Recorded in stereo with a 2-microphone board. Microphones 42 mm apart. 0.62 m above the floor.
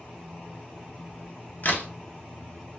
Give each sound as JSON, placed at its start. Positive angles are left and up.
{"t": 1.6, "sound": "a crack", "side_deg": 50, "distance_m": 0.6}